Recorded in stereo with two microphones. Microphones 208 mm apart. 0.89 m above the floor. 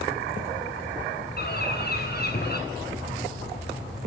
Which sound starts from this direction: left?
A bird, at 1.4 s.